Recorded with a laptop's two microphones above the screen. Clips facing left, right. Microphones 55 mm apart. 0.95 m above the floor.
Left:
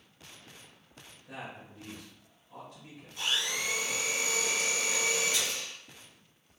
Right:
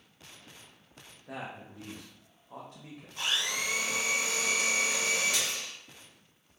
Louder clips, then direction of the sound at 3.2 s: Right 1 dB; 50° right (ahead or behind).